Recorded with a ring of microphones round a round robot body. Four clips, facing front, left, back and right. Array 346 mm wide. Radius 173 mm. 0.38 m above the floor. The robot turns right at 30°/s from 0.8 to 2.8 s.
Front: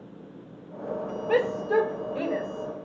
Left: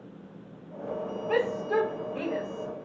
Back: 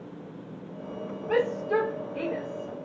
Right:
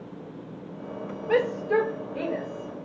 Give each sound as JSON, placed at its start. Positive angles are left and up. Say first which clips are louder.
{"t": 1.3, "sound": "a shout", "louder": "right 4 dB, front 2 dB", "azimuth_deg": -55, "distance_m": 1.7}